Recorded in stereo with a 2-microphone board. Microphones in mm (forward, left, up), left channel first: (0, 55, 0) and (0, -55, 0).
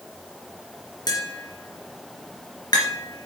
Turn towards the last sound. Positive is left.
turn(degrees=40)  # may be behind; listen again after turning